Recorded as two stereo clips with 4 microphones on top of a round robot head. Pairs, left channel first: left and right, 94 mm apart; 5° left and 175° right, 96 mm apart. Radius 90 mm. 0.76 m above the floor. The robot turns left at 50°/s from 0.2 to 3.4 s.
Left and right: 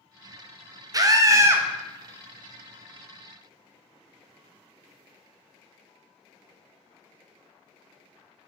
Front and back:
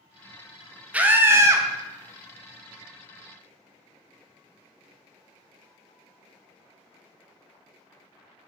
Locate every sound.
0.9 s a scream: 105° right, 0.9 m; by 1.7 s 140° right, 0.9 m